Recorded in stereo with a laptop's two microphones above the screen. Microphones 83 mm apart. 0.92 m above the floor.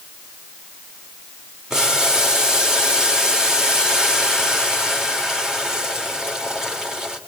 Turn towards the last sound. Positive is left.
turn(degrees=-5)  # may be behind; listen again after turning